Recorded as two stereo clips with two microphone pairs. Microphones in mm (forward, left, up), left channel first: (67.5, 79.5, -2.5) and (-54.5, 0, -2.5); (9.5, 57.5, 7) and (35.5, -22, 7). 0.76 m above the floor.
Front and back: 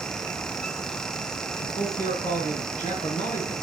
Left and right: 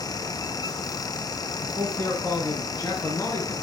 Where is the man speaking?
55° left, 8 m; by 3.5 s 60° left, 7 m.